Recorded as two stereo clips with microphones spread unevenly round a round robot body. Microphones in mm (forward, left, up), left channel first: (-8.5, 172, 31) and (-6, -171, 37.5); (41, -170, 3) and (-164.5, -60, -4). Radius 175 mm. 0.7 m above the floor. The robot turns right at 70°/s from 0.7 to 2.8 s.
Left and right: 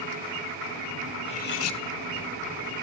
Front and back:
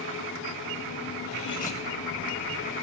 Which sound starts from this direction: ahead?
Cutlery clinking, at 1.2 s.